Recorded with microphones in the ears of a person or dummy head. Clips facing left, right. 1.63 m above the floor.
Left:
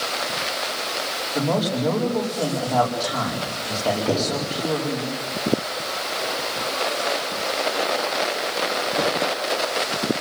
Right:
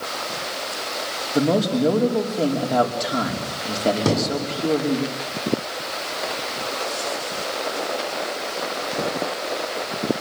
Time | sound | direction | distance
1.3 | a man speaking | 35° right (ahead or behind) | 5 m
4.0 | a thud | 70° right (ahead or behind) | 6 m